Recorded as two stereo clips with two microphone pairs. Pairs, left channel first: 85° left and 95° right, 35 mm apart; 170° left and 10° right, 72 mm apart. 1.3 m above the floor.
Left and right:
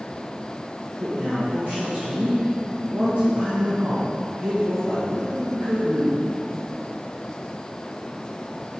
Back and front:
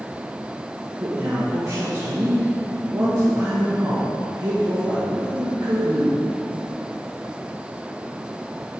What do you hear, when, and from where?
1.0 s a man speaking: 55° right, 1.8 m